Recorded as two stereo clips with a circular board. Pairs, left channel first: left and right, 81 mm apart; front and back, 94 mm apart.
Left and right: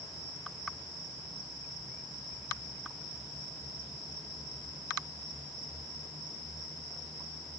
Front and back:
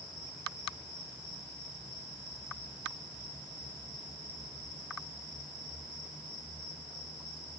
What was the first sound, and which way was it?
Only background noise.